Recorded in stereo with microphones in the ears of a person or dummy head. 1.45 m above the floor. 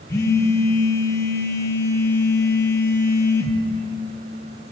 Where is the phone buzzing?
20° left (ahead or behind), 3 m.